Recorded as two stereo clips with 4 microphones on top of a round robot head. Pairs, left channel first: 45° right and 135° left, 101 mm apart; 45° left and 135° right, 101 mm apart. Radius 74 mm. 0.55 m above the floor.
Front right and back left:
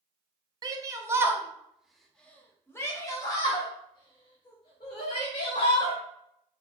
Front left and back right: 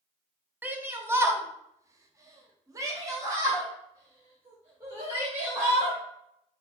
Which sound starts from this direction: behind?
A shout, at 0.6 s.